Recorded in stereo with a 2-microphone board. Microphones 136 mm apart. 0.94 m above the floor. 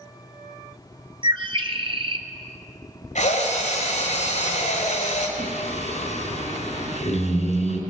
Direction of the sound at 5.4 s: 60° left (ahead or behind).